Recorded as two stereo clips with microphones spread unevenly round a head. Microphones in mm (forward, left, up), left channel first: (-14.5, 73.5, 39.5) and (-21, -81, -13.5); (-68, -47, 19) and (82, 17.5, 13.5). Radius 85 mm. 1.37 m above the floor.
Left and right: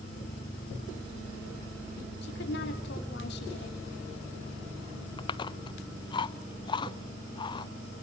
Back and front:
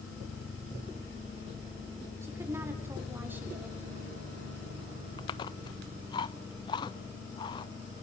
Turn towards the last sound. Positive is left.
turn(degrees=140)